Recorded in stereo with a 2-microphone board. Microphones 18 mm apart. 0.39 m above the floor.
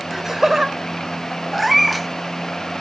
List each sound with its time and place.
0.1 s laughter: 20° right (ahead or behind), 1.4 m
1.5 s a cat meowing: centre (ahead or behind), 0.8 m